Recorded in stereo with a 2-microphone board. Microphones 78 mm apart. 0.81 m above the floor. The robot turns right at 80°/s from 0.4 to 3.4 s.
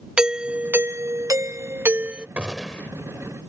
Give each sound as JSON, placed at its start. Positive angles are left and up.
{"t": 0.2, "sound": "a doorbell", "azimuth_deg": -165}
{"t": 2.4, "sound": "a gunshot", "azimuth_deg": -20}